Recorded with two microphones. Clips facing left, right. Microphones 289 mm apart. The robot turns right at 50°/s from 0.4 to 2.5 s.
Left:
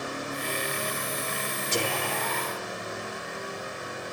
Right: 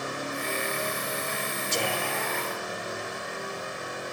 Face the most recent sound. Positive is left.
turn(degrees=135)